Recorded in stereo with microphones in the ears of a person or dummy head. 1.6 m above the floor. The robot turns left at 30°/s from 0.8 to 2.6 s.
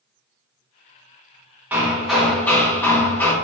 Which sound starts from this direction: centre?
Hammering, at 1.7 s.